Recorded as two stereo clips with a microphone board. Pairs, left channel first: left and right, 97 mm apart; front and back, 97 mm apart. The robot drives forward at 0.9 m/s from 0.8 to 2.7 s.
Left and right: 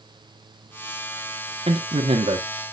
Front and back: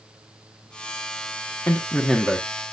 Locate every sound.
1.7 s a man speaking: 70° right, 1.6 m; by 2.5 s 100° right, 1.5 m